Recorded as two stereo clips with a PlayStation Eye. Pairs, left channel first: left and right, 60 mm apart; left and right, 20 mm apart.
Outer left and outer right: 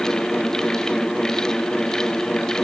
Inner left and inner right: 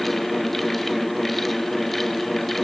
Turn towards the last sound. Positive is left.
No sound to turn to.